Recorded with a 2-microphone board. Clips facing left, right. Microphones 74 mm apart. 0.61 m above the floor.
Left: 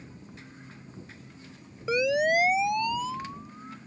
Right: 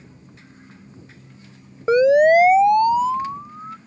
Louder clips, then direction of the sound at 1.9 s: Right 12 dB; 45° right (ahead or behind).